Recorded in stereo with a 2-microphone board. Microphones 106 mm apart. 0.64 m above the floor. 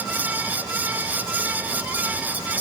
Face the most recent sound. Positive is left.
No sound to turn to.